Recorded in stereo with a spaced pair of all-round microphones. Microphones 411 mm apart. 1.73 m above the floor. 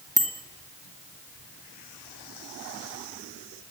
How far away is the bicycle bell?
About 2 m.